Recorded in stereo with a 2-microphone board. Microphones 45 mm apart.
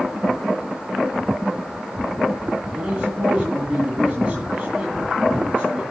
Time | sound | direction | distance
2.7 | a man speaking | 25° right (ahead or behind) | 3.5 m